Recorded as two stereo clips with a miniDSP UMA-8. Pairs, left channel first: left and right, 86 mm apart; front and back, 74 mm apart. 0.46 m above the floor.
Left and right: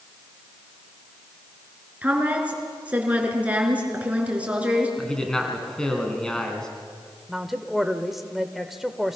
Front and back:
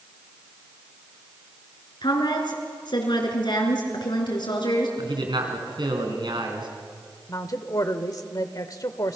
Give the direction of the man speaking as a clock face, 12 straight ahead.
6 o'clock.